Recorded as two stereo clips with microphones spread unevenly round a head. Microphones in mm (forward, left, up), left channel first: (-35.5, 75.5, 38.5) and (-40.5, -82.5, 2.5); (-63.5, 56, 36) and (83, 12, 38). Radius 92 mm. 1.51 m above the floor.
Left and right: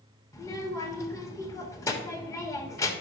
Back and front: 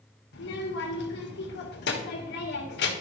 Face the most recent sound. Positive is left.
turn(degrees=160)